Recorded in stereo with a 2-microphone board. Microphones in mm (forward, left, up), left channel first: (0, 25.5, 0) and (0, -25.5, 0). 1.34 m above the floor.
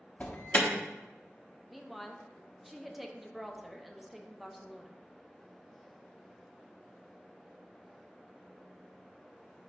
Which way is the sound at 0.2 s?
25° left (ahead or behind).